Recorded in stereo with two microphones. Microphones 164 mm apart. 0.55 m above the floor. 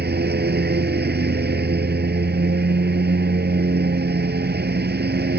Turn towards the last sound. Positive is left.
turn(degrees=-75)  # may be behind; listen again after turning